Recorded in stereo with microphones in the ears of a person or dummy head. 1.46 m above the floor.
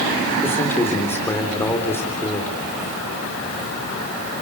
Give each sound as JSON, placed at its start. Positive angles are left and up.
{"t": 0.4, "sound": "a man speaking", "side_deg": 15, "distance_m": 4.0}